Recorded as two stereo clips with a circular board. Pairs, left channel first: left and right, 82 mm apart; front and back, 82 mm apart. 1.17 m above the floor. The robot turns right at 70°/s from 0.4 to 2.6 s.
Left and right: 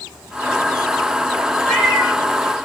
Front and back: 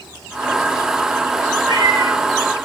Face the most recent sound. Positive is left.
turn(degrees=-125)